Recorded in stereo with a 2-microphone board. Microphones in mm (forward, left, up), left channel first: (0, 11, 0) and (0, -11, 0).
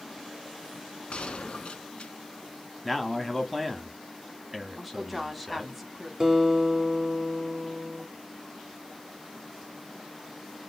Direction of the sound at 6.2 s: 25° right (ahead or behind).